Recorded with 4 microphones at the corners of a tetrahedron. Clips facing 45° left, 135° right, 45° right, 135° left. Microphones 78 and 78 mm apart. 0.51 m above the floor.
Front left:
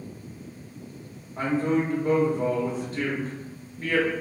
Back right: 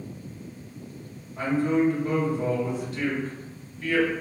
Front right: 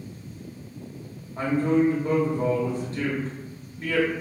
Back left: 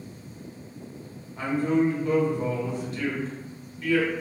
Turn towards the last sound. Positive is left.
turn(degrees=0)